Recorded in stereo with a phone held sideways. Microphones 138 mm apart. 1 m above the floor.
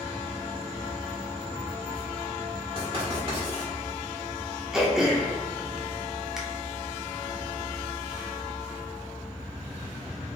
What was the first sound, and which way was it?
Writing, 45° right (ahead or behind).